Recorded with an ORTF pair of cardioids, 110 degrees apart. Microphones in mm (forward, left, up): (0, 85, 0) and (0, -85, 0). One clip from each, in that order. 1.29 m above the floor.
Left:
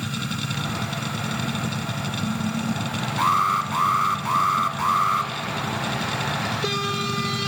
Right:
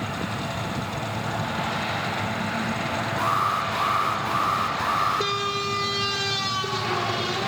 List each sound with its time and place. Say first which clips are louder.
0.0 s a machine running: even; 65° left, 2.5 m
3.2 s an alarm: left 4 dB; 55° left, 1.6 m